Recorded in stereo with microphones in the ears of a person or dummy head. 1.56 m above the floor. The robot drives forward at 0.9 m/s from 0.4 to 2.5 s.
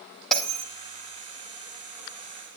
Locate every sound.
0.3 s a bell: 5° left (ahead or behind), 2 m